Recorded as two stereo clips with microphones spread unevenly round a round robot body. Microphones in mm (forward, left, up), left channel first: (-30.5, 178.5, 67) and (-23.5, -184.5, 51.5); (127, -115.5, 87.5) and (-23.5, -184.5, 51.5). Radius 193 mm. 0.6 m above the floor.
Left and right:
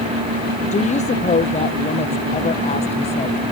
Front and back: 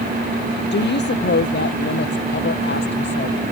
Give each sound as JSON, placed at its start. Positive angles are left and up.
{"t": 0.7, "sound": "a woman speaking", "azimuth_deg": 20}